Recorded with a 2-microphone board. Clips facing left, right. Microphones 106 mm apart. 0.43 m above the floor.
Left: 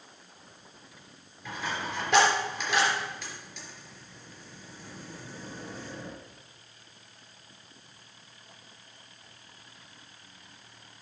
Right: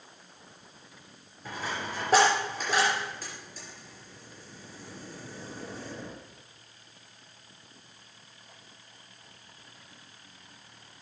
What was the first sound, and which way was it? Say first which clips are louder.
A dropped coin: left 1 dB; 40° right (ahead or behind).